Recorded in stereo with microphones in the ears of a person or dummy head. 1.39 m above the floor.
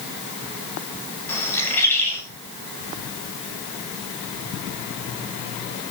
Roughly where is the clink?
I don't hear a clink.